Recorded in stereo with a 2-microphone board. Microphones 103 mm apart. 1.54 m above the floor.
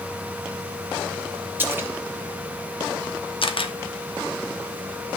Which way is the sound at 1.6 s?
20° right (ahead or behind).